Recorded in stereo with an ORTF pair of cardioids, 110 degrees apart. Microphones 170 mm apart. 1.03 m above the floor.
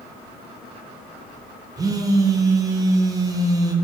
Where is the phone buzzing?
20° right, 0.6 m.